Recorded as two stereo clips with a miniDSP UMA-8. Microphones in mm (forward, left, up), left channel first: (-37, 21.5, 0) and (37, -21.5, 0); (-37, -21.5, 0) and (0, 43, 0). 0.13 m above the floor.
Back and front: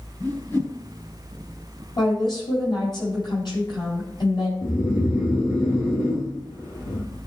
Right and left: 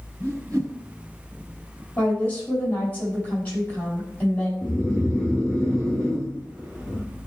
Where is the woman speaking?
170° left, 5.5 m.